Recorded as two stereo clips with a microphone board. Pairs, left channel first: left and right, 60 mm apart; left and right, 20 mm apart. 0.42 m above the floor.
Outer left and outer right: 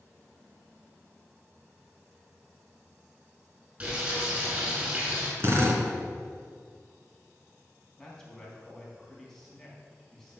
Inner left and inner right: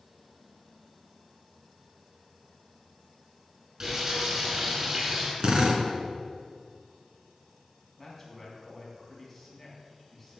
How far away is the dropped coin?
No dropped coin in this recording.